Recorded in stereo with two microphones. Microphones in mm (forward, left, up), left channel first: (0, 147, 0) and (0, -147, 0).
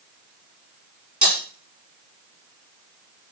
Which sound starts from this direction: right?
Breaking glass, at 1.2 s.